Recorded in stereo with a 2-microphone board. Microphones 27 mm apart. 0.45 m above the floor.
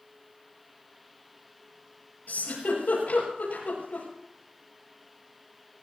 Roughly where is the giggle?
Left.